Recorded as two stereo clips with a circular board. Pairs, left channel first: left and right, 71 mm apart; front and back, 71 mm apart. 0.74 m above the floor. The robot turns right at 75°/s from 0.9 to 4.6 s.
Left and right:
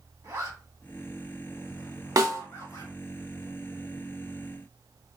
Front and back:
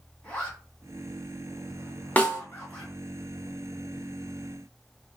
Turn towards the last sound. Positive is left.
turn(degrees=115)